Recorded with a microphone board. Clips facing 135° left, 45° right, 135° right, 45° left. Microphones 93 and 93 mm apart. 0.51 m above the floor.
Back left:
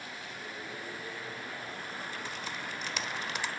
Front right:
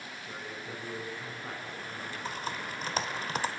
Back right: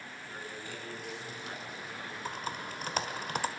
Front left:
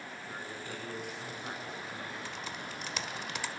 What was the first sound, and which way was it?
A man speaking, 20° right.